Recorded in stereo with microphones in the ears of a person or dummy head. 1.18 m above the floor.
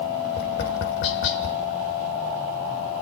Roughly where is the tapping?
Left.